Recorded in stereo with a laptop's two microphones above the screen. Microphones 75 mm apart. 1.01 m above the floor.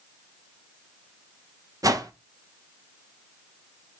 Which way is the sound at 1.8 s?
50° right (ahead or behind).